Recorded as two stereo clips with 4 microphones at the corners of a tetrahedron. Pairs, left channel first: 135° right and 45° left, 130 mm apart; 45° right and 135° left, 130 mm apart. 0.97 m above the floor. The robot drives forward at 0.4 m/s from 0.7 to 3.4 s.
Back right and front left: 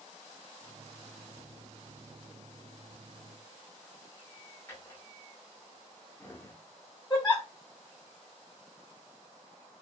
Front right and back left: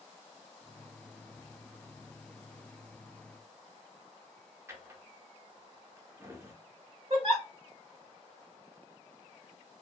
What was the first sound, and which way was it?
A drawer, straight behind.